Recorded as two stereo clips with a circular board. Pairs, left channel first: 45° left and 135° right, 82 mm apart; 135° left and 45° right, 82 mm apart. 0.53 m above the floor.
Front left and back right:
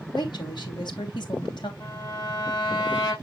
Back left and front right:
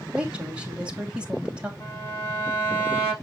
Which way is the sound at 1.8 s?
75° left.